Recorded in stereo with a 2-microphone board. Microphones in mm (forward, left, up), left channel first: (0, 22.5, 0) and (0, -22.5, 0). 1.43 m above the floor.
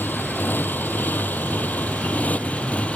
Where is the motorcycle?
50° left (ahead or behind); by 3.0 s 30° left (ahead or behind).